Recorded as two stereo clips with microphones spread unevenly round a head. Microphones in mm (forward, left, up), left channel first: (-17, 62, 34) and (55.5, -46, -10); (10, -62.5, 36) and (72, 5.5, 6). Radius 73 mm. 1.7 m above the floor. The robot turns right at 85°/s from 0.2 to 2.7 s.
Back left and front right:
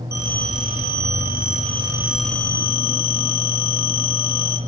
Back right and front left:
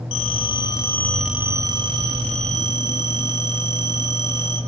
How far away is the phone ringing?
About 8 m.